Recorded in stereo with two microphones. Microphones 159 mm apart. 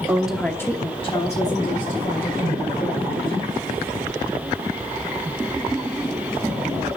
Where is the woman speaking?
15° right (ahead or behind), 1.1 m; by 3.4 s 55° left (ahead or behind), 3.5 m.